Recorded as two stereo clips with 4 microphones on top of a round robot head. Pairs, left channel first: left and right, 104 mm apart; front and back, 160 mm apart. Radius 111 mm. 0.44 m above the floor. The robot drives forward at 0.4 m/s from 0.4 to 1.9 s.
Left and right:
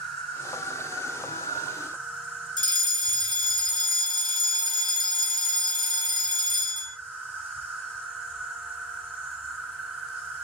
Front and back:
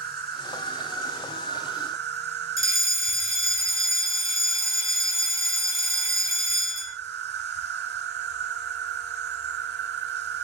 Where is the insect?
175° left, 3 m.